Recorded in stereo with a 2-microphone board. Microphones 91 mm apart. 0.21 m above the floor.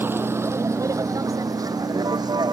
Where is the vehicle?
25° right (ahead or behind); by 2.5 s 50° right (ahead or behind).